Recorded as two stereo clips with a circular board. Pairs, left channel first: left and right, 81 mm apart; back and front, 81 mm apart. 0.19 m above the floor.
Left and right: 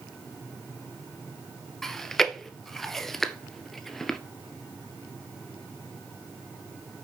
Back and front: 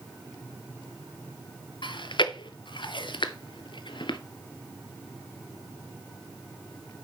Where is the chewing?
175° left, 0.7 m.